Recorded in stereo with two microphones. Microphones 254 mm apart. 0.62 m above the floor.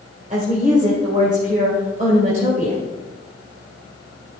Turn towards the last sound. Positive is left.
turn(degrees=-30)  # may be behind; listen again after turning